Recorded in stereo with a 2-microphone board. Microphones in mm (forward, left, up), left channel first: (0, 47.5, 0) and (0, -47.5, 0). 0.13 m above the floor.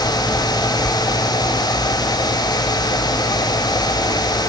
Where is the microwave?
I don't hear a microwave.